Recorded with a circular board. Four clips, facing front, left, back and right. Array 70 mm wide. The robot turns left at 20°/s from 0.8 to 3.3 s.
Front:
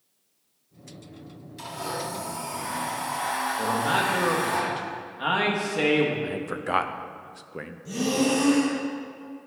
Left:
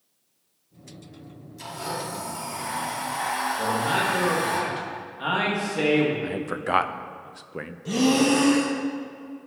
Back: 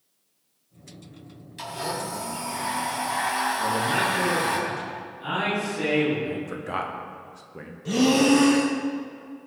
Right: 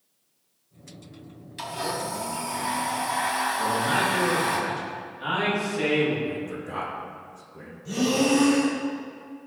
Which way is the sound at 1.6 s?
110° right.